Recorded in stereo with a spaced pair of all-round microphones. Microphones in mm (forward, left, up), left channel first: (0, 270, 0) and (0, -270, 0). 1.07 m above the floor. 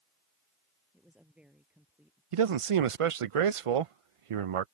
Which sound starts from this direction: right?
A man speaking, at 2.3 s.